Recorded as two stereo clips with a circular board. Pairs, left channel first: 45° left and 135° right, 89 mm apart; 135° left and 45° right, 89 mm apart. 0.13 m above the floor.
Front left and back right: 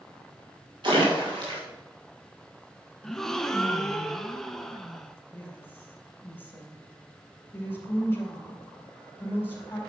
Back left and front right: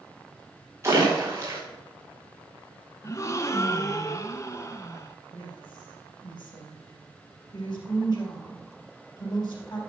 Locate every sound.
0.8 s a splash: 105° right, 4 m
3.0 s a gasp: 130° left, 0.7 m
5.3 s a woman speaking: 110° left, 3.5 m